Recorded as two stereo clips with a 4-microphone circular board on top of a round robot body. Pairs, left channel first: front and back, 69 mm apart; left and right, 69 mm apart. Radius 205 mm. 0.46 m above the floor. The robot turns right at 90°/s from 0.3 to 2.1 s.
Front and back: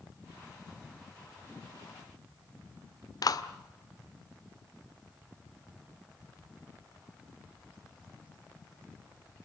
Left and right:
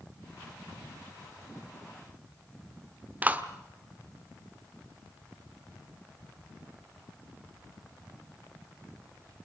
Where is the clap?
25° right, 1.6 m.